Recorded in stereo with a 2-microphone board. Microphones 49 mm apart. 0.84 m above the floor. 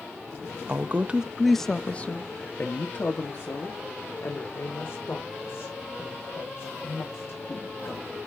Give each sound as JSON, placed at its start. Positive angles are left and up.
{"t": 0.7, "sound": "a woman speaking", "side_deg": -45, "distance_m": 0.8}